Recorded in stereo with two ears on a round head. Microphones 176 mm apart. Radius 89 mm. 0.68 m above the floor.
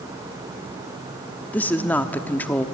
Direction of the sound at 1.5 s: 10° left (ahead or behind).